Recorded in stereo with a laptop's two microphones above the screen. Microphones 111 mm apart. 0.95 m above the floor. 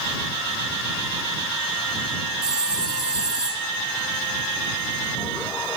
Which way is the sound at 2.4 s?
40° right (ahead or behind).